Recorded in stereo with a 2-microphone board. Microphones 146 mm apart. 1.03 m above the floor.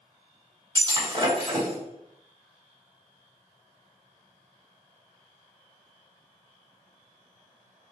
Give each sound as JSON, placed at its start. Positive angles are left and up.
{"t": 0.8, "sound": "breaking glass", "side_deg": -35, "distance_m": 1.7}